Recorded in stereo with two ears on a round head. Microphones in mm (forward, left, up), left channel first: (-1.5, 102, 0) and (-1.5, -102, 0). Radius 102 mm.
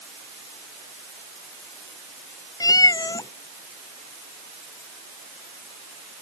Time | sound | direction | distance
2.6 | a cat meowing | 15° left (ahead or behind) | ?